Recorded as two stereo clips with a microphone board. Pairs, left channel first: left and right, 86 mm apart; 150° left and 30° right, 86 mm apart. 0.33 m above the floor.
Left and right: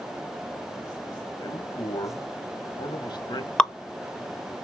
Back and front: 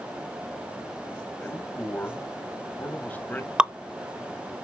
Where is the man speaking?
85° left, 2 m.